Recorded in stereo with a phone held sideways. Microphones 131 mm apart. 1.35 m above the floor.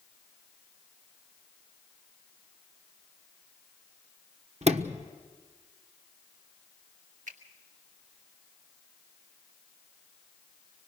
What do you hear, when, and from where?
4.6 s a sliding door: 55° right (ahead or behind), 1.2 m
7.3 s a finger snap: 75° right (ahead or behind), 2.5 m